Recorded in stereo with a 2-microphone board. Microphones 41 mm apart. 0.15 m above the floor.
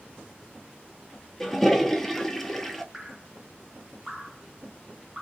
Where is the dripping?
5° right (ahead or behind), 1.3 m.